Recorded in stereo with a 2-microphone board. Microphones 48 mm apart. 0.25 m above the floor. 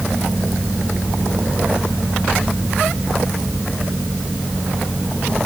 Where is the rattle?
I don't hear a rattle.